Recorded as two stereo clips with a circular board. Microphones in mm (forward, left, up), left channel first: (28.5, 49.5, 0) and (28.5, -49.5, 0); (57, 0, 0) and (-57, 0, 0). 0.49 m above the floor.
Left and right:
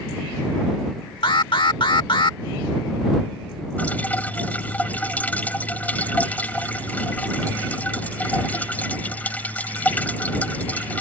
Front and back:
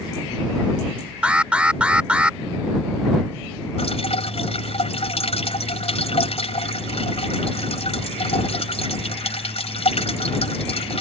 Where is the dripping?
20° left.